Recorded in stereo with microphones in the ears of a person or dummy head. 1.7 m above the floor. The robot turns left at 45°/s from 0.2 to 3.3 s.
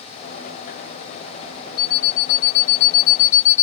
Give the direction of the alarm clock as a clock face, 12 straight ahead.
8 o'clock.